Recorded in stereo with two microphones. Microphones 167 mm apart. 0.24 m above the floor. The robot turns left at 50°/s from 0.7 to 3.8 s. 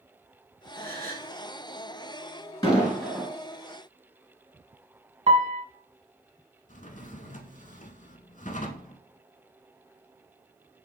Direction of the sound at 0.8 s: 75° right (ahead or behind).